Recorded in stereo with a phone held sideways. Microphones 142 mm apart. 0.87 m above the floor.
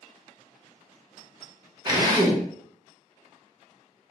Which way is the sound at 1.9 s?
30° right (ahead or behind).